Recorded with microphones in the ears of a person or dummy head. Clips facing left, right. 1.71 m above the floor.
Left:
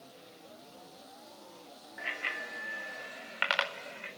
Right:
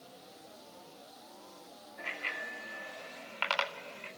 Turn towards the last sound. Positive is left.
turn(degrees=25)  # may be behind; listen again after turning